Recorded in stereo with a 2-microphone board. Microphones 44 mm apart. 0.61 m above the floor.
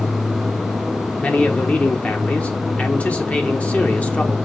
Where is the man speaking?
35° left (ahead or behind), 1.3 m.